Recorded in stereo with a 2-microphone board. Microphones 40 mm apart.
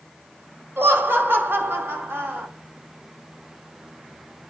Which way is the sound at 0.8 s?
60° right (ahead or behind).